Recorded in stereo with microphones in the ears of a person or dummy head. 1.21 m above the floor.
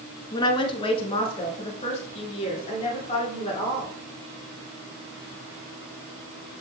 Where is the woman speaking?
25° left (ahead or behind), 0.8 m; by 3.9 s 40° left (ahead or behind), 3.5 m.